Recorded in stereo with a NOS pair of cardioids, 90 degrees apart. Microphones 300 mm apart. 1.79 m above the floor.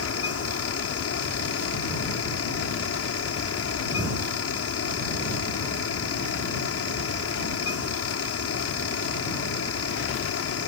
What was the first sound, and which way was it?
A fan, 50° left.